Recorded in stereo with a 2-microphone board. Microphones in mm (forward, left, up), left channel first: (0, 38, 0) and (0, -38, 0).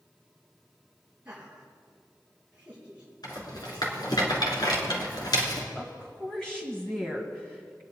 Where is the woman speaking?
5° left (ahead or behind), 1.8 m.